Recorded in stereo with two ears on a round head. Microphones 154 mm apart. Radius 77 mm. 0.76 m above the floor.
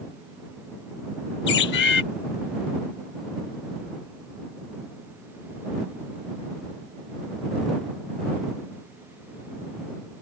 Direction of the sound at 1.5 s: 70° left (ahead or behind).